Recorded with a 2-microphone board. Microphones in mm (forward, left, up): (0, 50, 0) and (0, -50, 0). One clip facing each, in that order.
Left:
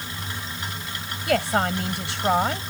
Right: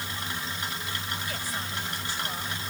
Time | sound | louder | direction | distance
1.3 | a woman speaking | left 13 dB | 75° left (ahead or behind) | ?